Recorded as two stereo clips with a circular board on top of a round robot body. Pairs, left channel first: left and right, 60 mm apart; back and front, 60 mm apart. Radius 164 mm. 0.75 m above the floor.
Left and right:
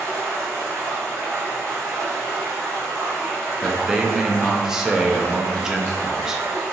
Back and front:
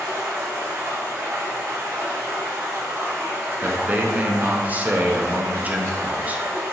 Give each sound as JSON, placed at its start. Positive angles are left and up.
{"t": 0.0, "sound": "running water", "azimuth_deg": -50, "distance_m": 0.8}
{"t": 3.6, "sound": "a man speaking", "azimuth_deg": -20, "distance_m": 0.6}